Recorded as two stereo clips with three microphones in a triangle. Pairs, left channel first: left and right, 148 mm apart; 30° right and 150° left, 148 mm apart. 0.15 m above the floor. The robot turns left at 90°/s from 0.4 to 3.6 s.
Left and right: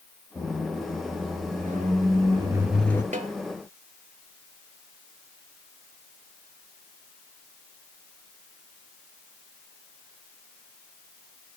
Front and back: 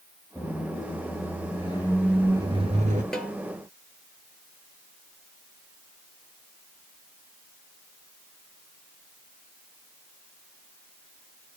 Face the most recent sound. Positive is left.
turn(degrees=-160)